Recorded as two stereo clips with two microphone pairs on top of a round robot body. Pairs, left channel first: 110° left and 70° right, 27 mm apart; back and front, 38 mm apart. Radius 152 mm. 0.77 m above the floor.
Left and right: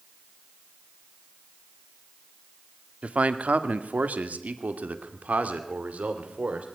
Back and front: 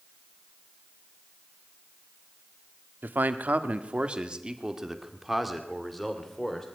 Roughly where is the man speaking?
Ahead right.